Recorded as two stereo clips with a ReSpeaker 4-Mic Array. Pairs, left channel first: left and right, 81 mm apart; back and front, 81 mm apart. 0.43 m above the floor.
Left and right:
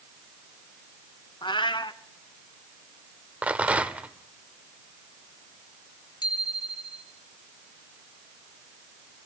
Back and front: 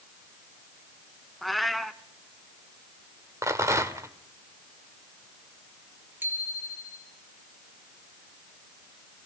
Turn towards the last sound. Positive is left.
turn(degrees=65)